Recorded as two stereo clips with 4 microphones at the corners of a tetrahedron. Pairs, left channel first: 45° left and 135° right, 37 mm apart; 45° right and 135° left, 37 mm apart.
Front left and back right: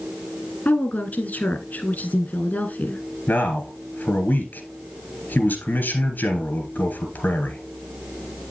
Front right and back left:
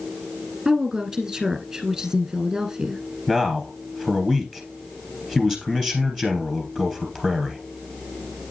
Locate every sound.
0.7 s a woman speaking: 60° left, 1.7 m
3.3 s a man speaking: 35° left, 3 m